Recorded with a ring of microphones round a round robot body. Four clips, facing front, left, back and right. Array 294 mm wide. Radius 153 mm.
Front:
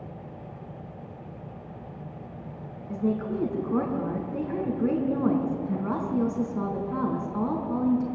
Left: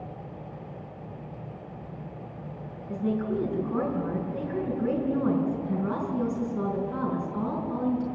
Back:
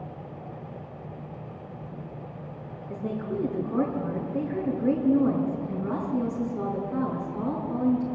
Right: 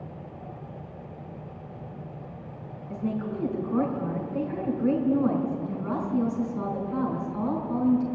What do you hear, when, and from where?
2.9 s a woman speaking: 15° left, 5.5 m